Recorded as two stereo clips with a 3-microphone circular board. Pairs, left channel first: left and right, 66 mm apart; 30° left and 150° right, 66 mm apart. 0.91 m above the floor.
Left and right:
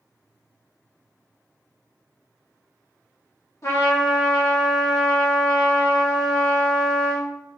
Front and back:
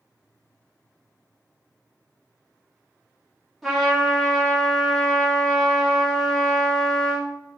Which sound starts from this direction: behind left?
A trumpet, at 3.6 s.